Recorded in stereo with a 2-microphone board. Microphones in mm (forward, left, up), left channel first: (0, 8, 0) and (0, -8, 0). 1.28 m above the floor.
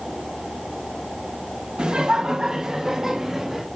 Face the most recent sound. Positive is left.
turn(degrees=-25)  # may be behind; listen again after turning